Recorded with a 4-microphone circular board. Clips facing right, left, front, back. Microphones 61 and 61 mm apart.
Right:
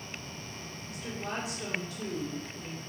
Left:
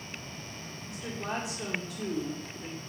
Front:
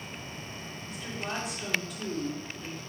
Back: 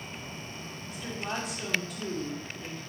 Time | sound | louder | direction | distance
0.8 | a woman speaking | left 2 dB, back 1 dB | 90° left | 1.0 m